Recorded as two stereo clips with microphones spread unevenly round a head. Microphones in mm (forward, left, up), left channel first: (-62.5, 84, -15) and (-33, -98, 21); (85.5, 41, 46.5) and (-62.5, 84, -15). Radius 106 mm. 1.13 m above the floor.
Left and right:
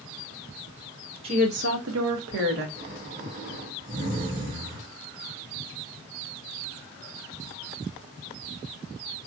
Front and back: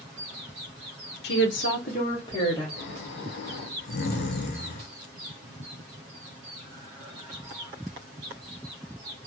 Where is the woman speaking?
15° right, 0.6 m; by 2.7 s 95° right, 1.0 m.